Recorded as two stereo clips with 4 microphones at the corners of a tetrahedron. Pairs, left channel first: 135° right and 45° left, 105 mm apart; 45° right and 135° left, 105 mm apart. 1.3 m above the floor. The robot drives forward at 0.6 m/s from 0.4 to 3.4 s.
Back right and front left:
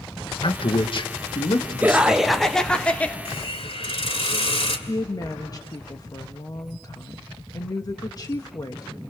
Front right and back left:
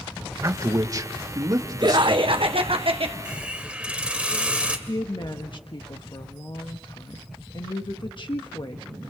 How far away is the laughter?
About 0.8 m.